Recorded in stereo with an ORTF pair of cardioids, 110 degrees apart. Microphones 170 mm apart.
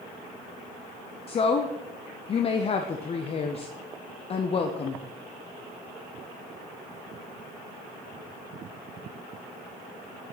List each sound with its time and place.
1.3 s a woman speaking: 35° left, 0.7 m